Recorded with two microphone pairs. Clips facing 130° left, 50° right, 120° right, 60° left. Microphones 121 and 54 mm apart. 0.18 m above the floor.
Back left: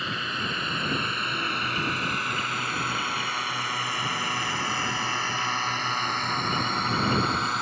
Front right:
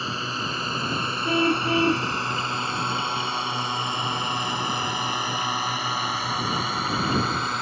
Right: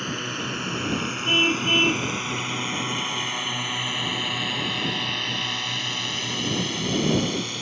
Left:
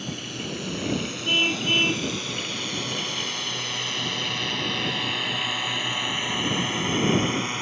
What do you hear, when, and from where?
0.0 s a drone: 100° right; by 7.6 s 40° left
1.2 s a car horn: 40° right